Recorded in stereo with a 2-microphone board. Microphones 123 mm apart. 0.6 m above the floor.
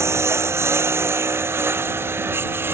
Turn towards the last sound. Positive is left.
turn(degrees=-20)  # may be behind; listen again after turning